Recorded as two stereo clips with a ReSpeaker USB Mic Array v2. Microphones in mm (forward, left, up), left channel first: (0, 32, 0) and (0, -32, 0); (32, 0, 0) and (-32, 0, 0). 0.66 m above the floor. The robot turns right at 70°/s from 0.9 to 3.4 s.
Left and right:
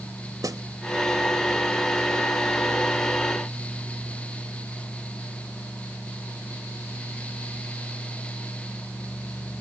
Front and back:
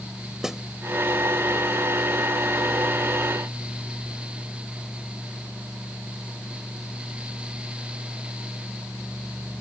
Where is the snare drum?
100° right.